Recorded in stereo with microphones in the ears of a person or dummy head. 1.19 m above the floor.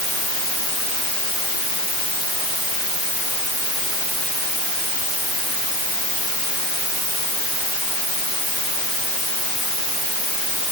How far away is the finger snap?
I don't hear a finger snap.